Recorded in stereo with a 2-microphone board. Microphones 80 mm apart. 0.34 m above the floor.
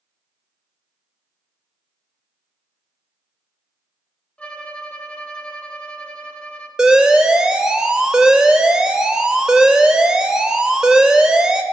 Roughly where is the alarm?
Centre.